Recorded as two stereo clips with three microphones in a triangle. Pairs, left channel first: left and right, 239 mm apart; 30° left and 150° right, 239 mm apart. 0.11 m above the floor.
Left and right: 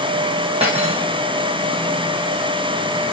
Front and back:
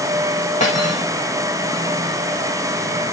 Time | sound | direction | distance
0.6 | cutlery clinking | 30° right | 4.5 m